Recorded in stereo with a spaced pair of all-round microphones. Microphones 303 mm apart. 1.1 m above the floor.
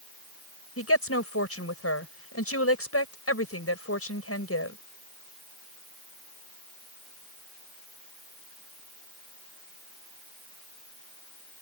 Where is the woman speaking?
50° left (ahead or behind).